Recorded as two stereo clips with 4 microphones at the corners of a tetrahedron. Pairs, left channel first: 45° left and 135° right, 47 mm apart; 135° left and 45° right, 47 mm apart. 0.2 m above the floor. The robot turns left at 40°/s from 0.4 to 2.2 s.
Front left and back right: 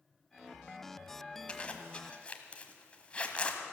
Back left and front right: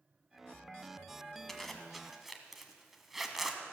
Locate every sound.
1.5 s a zipper: 60° left, 1.3 m; by 3.6 s 30° left, 1.3 m